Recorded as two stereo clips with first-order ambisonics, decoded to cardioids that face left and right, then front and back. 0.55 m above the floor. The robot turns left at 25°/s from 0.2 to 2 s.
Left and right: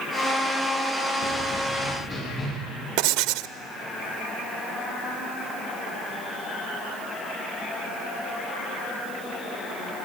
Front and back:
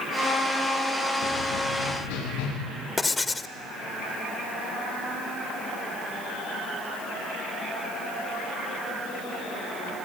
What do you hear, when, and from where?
1.2 s running footsteps: 30° left, 8.5 m; by 2.5 s 20° left, 8.5 m
3.0 s writing: 75° right, 0.6 m